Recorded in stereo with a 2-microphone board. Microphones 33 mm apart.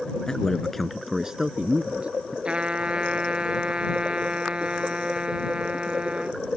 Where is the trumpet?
35° right (ahead or behind).